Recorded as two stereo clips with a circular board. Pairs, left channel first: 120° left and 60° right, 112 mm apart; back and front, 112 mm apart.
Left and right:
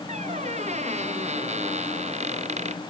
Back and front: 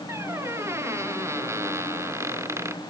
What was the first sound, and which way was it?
A squeak, 65° right.